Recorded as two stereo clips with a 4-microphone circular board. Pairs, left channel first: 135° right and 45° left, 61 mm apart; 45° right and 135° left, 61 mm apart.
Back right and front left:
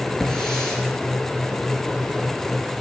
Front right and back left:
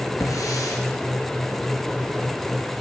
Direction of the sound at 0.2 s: 55° right.